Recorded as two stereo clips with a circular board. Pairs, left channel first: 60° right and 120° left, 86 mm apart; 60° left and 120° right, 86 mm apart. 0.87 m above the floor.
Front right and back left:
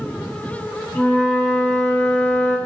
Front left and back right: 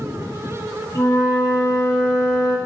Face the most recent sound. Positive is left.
turn(degrees=5)